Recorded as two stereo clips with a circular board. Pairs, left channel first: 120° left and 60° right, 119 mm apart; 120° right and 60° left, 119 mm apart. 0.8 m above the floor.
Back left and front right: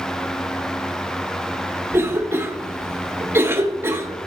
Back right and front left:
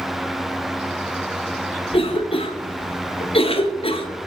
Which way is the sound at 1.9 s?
125° right.